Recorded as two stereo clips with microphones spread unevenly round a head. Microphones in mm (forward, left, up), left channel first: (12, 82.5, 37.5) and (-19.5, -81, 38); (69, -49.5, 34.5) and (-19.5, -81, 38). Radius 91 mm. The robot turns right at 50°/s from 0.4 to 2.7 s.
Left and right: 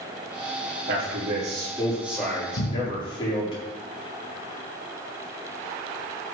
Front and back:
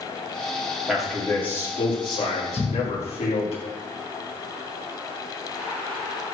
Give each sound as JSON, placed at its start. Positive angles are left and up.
{"t": 0.9, "sound": "a man speaking", "azimuth_deg": -75, "distance_m": 5.0}
{"t": 2.6, "sound": "a cupboard door", "azimuth_deg": 70, "distance_m": 1.9}